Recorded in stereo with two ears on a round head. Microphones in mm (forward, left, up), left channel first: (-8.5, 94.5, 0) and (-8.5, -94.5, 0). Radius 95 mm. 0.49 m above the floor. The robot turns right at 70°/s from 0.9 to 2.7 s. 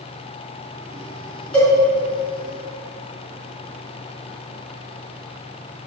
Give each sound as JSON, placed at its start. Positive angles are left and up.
{"t": 1.5, "sound": "a cowbell", "side_deg": 5, "distance_m": 3.5}